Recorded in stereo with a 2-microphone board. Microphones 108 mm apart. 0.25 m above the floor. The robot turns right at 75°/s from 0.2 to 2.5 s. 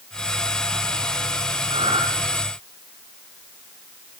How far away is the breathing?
About 5.5 m.